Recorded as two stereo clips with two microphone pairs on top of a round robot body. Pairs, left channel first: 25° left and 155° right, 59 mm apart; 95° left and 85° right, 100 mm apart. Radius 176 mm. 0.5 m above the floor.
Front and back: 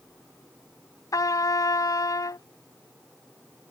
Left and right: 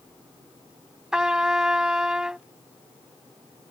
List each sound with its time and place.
1.1 s a trumpet: straight ahead